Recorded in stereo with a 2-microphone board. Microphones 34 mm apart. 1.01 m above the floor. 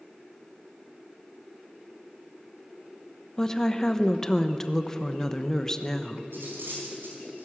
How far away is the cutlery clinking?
About 4.5 m.